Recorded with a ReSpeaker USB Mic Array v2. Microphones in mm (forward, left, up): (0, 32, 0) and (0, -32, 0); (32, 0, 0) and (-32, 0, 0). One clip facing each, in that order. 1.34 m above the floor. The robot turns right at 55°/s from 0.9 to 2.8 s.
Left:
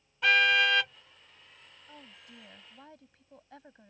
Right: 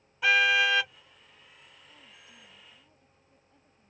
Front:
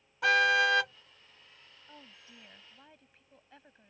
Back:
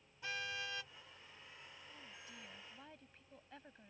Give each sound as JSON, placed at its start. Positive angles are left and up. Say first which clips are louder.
{"t": 0.2, "sound": "a car horn", "louder": "right 1 dB, front 20 dB", "azimuth_deg": -5}
{"t": 1.9, "sound": "a woman speaking", "louder": "left 7 dB, front 5 dB", "azimuth_deg": 40}